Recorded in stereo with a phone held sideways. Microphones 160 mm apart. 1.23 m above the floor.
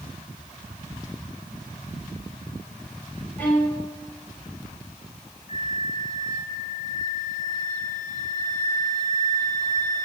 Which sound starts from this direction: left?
A flute, at 5.5 s.